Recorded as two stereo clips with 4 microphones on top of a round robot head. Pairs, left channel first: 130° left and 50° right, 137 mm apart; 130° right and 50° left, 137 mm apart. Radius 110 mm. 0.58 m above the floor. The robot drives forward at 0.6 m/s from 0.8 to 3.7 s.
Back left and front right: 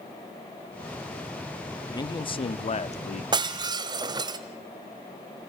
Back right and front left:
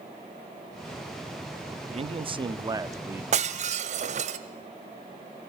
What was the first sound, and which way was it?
A man speaking, 75° left.